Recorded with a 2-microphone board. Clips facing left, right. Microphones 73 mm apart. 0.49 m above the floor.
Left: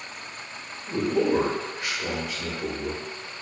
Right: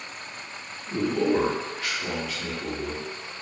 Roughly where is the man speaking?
Centre.